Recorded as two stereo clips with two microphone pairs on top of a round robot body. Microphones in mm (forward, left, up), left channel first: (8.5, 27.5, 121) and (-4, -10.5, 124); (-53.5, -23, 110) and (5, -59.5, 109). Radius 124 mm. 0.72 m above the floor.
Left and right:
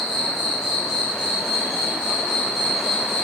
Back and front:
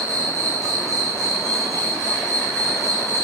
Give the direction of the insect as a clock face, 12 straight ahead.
6 o'clock.